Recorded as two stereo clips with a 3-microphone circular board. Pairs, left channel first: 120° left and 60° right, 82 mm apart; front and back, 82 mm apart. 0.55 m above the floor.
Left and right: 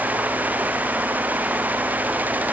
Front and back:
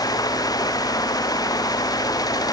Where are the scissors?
I don't hear scissors.